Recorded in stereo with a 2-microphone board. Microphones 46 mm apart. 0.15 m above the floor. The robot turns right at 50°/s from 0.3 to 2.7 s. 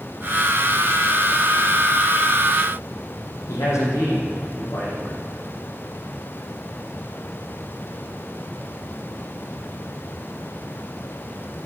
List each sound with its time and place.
3.5 s a man speaking: 80° left, 5.5 m